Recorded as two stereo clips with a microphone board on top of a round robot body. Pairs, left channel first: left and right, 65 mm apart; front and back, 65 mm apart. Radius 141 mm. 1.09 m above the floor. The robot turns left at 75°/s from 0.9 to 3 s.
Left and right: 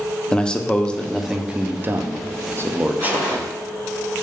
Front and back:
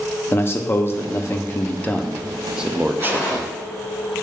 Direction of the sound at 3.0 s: 50° right.